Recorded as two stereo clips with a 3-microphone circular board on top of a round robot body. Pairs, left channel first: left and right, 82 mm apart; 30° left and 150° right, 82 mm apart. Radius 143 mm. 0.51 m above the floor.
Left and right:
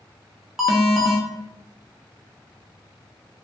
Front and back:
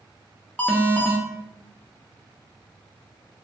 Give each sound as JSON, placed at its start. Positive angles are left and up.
{"t": 0.6, "sound": "an alarm", "azimuth_deg": -10, "distance_m": 0.9}